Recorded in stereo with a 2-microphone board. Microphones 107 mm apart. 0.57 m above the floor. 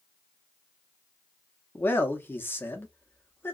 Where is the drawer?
I don't hear a drawer.